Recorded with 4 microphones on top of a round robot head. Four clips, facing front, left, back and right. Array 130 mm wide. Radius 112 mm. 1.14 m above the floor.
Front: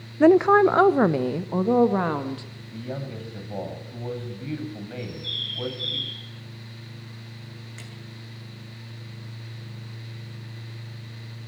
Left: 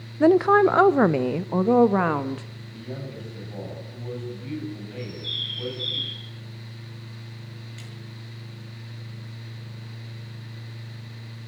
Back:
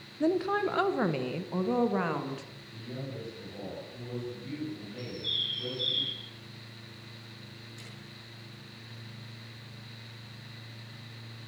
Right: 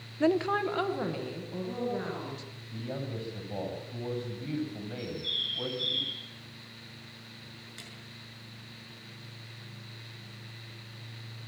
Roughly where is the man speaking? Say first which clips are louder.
Even, front 7 dB; ahead.